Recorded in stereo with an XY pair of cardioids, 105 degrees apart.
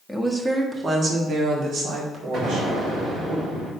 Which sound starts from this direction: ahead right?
An explosion, at 2.3 s.